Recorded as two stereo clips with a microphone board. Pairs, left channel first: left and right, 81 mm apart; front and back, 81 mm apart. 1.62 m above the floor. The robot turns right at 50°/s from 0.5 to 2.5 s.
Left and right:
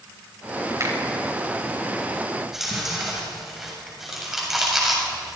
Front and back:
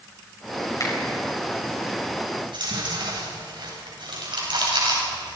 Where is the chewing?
Straight behind, 7.5 m; by 5.4 s 175° right, 7.5 m.